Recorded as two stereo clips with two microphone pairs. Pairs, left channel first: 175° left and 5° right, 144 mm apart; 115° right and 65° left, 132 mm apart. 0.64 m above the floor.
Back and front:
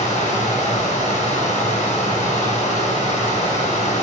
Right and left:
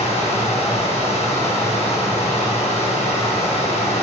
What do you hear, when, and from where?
0.0 s running water: 150° right, 3.5 m